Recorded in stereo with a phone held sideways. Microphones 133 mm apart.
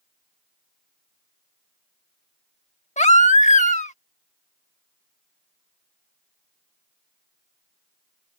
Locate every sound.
3.0 s a baby crying: 65° left (ahead or behind)